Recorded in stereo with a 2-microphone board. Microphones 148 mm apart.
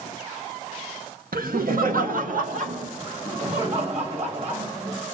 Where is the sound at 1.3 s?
75° right (ahead or behind), 1.2 m; by 2.9 s 60° right (ahead or behind), 2 m.